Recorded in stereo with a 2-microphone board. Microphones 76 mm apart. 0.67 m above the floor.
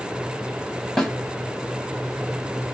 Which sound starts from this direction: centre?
A snare drum, at 1.0 s.